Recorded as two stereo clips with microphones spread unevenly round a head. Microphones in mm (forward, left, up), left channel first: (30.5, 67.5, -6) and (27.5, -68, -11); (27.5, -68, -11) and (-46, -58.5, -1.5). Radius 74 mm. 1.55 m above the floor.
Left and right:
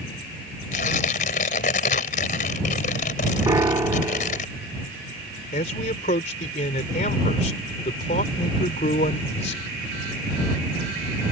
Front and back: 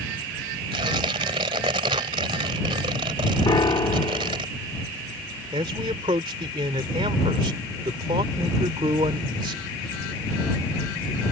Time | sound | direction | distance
0.7 | tearing paper | 130° left | ?
3.5 | a piano | 30° right | ?
5.5 | a man speaking | 135° left | ?